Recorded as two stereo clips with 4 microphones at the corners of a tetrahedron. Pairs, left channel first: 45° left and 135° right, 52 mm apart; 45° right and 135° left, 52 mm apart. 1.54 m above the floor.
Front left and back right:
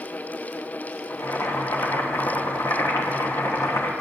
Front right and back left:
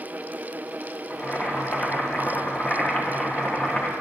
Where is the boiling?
25° left, 1.2 m.